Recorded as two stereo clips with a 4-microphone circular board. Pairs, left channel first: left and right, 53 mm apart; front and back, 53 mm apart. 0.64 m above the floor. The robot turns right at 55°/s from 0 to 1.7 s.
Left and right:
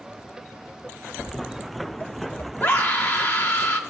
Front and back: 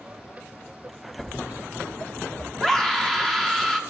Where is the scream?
75° left, 1.0 m.